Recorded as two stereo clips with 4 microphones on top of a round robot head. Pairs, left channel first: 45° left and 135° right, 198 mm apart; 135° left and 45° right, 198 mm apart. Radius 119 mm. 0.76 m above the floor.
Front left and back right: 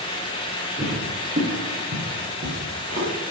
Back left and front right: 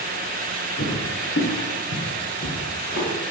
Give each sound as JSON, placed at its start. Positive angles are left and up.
{"t": 0.8, "sound": "footsteps", "azimuth_deg": 170, "distance_m": 6.5}